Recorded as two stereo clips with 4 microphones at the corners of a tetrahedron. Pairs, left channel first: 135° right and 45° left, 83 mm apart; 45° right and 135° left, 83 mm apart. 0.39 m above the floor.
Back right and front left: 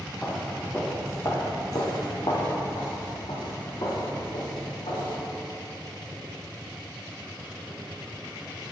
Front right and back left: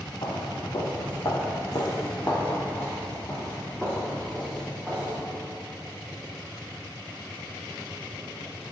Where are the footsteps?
55° right, 1.4 m; by 5.1 s 135° right, 2.5 m.